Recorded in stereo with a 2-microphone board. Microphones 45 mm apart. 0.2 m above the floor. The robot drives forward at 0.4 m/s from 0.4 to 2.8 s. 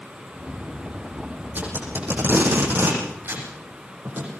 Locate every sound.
1.6 s tape being pulled: 45° right (ahead or behind), 9.5 m